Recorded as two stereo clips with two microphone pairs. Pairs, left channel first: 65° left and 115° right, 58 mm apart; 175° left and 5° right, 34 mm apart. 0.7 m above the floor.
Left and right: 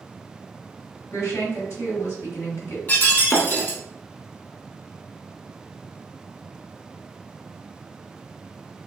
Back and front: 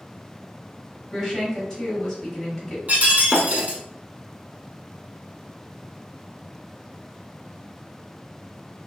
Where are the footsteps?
No footsteps in this recording.